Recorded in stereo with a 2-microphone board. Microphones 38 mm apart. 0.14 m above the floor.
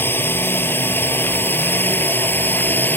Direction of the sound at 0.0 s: 65° left (ahead or behind).